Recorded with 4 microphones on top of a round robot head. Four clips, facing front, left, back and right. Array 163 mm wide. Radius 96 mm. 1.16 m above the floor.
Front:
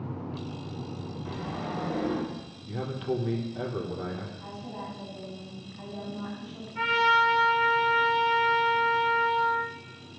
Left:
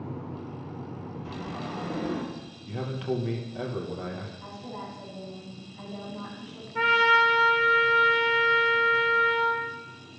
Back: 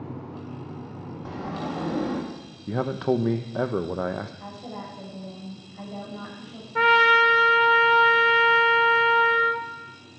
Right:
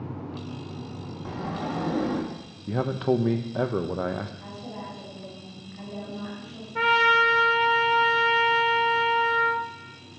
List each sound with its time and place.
1.2 s a sliding door: 135° right, 2 m
2.7 s a man speaking: 145° right, 1.0 m
4.4 s a woman speaking: 165° right, 7.5 m
6.8 s a trumpet: 175° right, 1.7 m